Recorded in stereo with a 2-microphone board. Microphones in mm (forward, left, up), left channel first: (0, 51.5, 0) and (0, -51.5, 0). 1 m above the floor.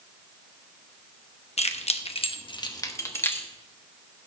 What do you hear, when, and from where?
1.6 s keys jangling: 80° left, 1.0 m; by 3.5 s 20° left (ahead or behind), 1.4 m